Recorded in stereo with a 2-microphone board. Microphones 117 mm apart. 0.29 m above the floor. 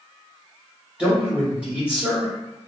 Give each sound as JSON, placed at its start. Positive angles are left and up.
{"t": 1.0, "sound": "a man speaking", "side_deg": -10, "distance_m": 1.5}